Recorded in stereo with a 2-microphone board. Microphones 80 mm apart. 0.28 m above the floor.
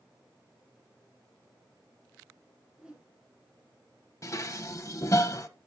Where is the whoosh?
10° right (ahead or behind), 2.5 m.